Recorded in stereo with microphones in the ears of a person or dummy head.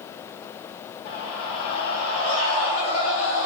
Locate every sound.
1.1 s a scream: 75° left (ahead or behind), 3.5 m; by 3.5 s 70° left (ahead or behind), 2.5 m